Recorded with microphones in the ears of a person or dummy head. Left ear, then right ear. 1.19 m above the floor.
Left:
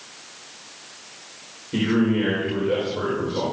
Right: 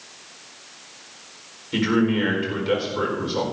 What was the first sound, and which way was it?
A man speaking, 80° right.